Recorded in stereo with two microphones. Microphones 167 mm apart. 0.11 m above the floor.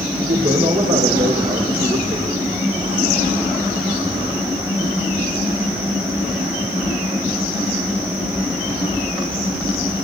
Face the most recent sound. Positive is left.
turn(degrees=-55)  # may be behind; listen again after turning